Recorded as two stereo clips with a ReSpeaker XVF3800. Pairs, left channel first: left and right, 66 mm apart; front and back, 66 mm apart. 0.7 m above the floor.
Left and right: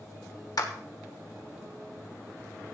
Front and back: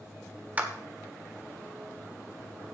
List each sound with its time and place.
0.6 s a clap: 115° left, 1.3 m